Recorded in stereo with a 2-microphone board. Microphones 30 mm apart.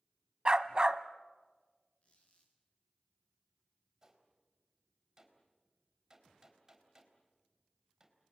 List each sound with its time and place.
0.5 s a dog barking: 30° right (ahead or behind), 0.9 m
2.0 s a squeak: 45° left (ahead or behind), 5 m
4.0 s a gunshot: 20° right (ahead or behind), 4 m